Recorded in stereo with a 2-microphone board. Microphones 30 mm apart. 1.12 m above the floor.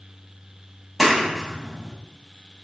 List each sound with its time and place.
1.0 s a clap: 5° left (ahead or behind), 1.1 m